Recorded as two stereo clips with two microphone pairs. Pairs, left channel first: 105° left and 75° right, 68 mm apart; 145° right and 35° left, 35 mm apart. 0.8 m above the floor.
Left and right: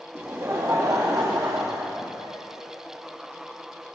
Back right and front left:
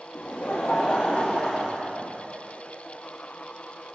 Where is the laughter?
130° right, 0.8 m; by 2.4 s 65° right, 1.5 m.